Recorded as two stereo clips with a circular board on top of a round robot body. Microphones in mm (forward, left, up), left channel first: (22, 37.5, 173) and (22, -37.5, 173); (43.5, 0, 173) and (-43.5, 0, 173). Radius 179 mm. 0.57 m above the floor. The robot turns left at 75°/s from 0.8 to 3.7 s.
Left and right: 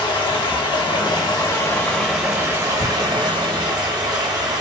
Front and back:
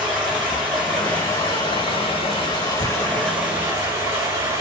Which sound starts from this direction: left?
Running water, at 0.0 s.